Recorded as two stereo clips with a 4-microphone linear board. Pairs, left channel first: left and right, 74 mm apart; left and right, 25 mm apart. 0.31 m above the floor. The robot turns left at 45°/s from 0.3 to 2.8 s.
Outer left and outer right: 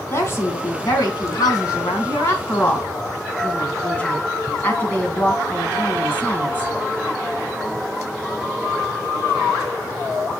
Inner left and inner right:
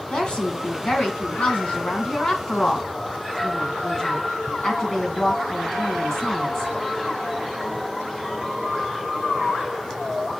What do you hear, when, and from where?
0.1 s a woman speaking: 140° left, 2.5 m; by 6.7 s 25° left, 2.5 m